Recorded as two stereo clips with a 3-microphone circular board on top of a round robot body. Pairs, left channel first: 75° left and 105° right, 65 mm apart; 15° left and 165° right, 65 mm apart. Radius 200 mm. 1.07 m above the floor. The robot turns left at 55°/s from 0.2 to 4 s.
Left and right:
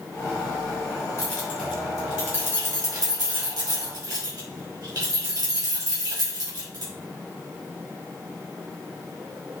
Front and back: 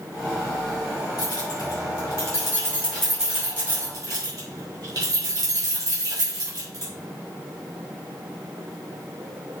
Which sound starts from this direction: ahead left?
Keys jangling, at 1.2 s.